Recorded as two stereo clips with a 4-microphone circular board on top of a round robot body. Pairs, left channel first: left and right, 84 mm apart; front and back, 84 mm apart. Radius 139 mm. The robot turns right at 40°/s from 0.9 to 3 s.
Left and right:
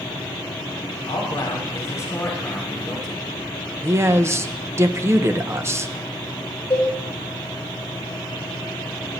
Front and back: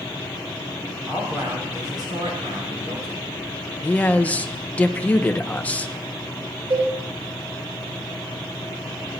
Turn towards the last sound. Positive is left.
turn(degrees=155)